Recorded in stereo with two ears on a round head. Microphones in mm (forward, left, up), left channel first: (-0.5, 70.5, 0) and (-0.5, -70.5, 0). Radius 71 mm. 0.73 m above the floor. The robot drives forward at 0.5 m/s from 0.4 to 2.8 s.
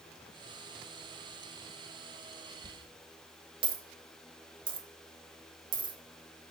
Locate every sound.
2.6 s a dropped coin: 30° right (ahead or behind), 1.3 m